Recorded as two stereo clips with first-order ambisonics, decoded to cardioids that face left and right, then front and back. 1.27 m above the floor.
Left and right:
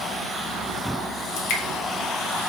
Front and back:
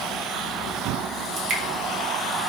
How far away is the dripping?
About 1.0 m.